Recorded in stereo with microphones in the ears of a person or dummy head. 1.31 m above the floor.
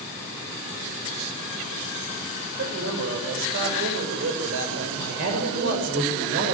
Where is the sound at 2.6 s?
75° right (ahead or behind), 7 m.